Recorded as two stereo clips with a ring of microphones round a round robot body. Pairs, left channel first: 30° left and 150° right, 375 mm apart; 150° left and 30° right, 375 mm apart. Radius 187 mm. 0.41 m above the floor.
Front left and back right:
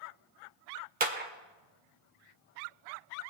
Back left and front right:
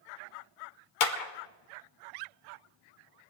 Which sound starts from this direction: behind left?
A clap, at 1.0 s.